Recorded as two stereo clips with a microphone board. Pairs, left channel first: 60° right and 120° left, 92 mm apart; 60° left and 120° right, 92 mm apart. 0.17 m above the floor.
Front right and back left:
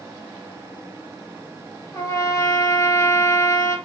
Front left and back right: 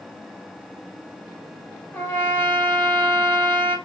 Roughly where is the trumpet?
Ahead.